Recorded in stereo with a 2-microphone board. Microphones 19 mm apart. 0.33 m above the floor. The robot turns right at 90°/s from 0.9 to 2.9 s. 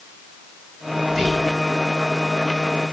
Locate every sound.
1.1 s whispering: 65° right, 1.8 m; by 1.5 s 20° right, 1.8 m